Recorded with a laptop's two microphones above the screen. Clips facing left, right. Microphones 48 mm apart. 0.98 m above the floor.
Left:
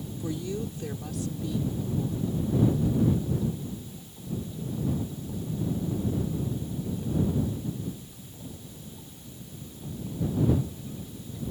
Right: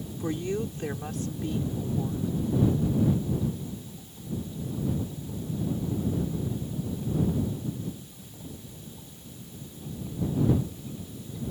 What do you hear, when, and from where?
0.2 s a woman speaking: 45° right (ahead or behind)